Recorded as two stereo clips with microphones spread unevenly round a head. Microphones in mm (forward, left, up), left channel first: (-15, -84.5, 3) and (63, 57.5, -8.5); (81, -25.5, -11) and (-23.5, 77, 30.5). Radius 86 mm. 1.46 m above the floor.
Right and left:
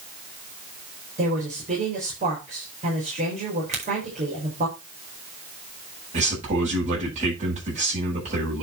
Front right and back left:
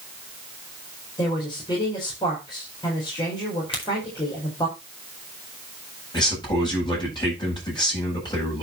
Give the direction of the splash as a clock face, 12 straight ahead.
No splash in this recording.